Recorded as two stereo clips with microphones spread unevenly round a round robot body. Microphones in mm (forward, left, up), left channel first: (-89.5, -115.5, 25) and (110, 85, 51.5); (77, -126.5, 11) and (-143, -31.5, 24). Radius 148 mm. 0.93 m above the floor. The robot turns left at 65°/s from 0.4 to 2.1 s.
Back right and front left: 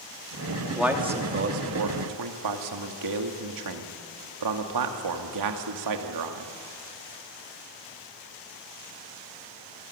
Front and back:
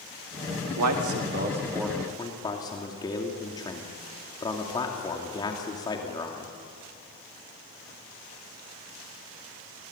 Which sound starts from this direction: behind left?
A man speaking, at 0.8 s.